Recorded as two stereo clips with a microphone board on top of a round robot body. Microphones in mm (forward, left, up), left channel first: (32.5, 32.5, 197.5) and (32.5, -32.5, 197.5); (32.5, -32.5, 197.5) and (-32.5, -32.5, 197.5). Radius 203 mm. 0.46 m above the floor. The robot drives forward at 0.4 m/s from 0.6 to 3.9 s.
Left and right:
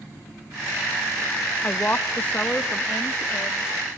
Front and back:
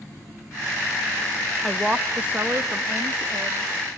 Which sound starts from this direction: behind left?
A woman speaking, at 1.6 s.